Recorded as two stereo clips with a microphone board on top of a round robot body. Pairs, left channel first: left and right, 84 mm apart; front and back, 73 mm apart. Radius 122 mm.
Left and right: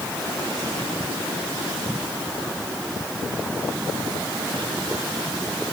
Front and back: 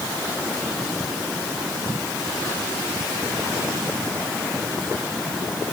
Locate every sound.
Only background noise.